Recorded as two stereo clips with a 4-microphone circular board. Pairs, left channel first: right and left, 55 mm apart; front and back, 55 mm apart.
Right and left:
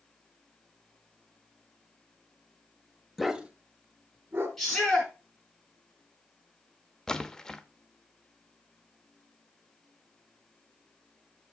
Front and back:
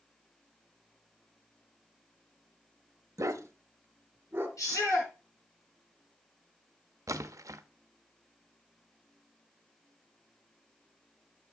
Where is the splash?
170° right, 0.6 m.